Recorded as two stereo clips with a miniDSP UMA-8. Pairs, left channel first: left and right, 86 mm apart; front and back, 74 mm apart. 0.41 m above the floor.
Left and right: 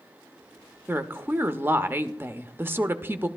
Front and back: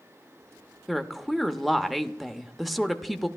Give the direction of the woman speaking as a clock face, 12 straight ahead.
3 o'clock.